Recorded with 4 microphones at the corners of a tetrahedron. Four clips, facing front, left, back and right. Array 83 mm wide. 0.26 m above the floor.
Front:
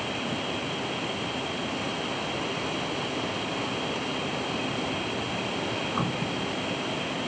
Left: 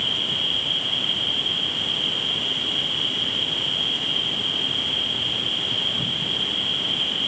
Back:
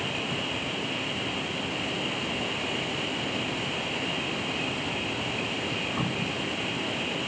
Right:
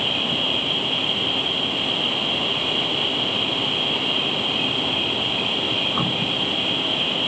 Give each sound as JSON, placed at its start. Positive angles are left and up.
{"t": 0.0, "sound": "an insect", "azimuth_deg": -80}